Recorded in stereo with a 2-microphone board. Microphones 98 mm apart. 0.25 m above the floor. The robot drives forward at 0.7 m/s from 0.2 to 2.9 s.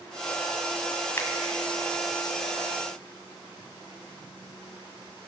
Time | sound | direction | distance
1.2 | a finger snap | 30° left (ahead or behind) | 1.2 m